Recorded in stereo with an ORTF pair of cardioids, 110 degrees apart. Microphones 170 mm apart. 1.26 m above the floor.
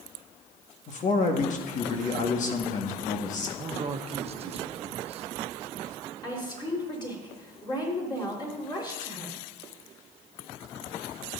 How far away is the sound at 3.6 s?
About 1.2 m.